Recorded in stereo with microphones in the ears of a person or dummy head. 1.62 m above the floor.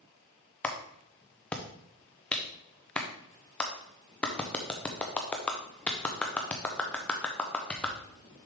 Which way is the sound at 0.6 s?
15° left (ahead or behind).